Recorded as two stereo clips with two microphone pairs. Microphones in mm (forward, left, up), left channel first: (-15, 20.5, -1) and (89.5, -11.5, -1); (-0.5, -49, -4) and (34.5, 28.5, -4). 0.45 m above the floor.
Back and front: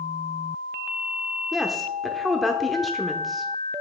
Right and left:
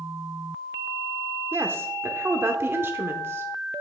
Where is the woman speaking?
70° left, 0.8 m.